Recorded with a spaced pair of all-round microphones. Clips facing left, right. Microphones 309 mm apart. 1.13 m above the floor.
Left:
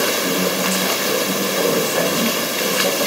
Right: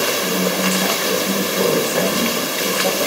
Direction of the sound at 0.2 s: 75° right (ahead or behind).